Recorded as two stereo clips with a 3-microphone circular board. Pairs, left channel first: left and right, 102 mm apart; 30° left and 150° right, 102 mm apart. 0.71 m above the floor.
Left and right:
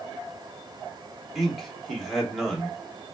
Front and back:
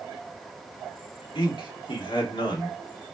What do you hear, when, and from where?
1.4 s a man speaking: straight ahead, 1.5 m